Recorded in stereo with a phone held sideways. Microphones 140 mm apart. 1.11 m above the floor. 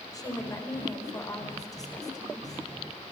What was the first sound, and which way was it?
A woman speaking, 25° left (ahead or behind).